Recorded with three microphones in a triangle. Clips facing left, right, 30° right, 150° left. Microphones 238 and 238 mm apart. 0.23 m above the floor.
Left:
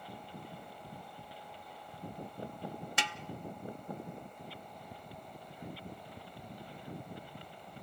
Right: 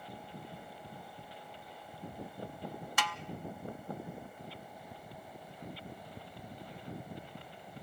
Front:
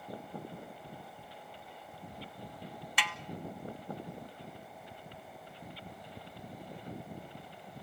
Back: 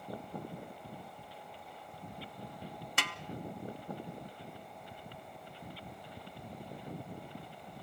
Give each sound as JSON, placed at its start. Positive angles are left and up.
{"t": 3.0, "sound": "a snare drum", "azimuth_deg": 140, "distance_m": 0.5}